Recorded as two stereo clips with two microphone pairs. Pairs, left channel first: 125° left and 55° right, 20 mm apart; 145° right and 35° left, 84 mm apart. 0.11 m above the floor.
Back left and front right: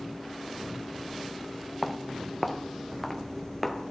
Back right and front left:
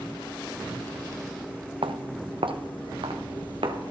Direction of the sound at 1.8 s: 40° left.